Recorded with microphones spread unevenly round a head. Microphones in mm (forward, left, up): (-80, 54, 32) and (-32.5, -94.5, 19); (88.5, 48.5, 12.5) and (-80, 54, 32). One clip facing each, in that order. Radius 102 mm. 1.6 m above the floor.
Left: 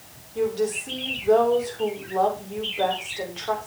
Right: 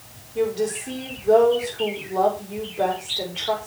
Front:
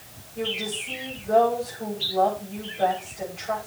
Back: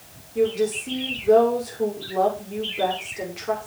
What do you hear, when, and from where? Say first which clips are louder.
0.3 s a woman speaking: right 1 dB, back 10 dB; 150° right, 7 m